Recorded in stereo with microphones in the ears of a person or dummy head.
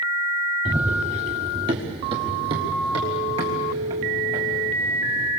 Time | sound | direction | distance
0.7 | running footsteps | 15° right (ahead or behind) | 1.7 m